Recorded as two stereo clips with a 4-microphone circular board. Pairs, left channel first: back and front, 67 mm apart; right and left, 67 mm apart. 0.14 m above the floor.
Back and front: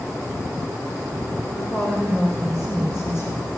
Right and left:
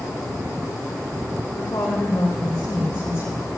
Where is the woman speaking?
100° right, 4.5 m; by 3.5 s 125° right, 4 m.